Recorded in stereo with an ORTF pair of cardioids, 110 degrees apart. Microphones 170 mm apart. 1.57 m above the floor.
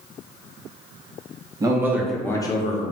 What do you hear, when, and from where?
1.6 s a man speaking: 25° right, 0.9 m; by 2.8 s 50° left, 0.7 m